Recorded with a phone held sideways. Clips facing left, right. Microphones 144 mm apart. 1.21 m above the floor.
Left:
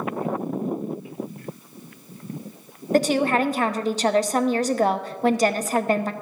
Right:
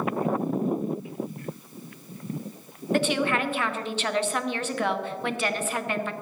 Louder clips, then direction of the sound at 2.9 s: Left 5 dB; 40° left (ahead or behind).